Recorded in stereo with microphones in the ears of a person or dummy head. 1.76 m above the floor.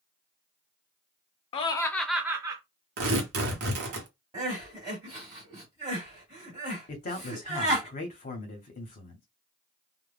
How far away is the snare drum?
No snare drum in this recording.